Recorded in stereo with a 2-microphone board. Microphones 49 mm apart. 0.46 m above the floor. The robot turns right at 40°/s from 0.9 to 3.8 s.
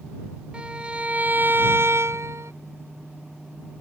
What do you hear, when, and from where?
0.5 s a violin: 155° right; by 2.5 s 90° right